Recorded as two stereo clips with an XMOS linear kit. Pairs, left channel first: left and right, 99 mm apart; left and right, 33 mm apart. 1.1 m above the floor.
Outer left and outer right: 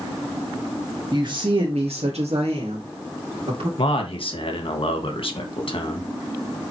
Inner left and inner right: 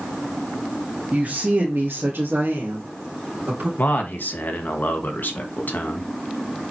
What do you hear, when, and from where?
1.1 s a woman speaking: 35° right (ahead or behind), 1.1 m; by 3.7 s 60° right (ahead or behind), 3 m
3.8 s a man speaking: 60° left (ahead or behind), 1.6 m